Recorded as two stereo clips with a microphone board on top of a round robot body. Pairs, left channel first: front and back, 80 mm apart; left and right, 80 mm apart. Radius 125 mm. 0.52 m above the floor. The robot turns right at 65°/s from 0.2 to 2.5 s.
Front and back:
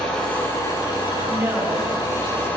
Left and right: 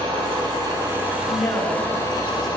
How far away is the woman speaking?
About 7.5 m.